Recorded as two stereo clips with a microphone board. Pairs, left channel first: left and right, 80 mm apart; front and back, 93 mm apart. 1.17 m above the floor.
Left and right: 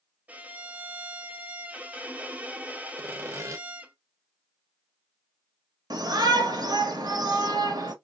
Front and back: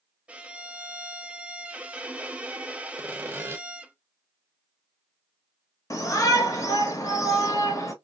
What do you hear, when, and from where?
0.3 s a violin: 125° right, 0.5 m
3.0 s sawing: 125° right, 0.7 m
5.9 s a shout: 55° right, 1.0 m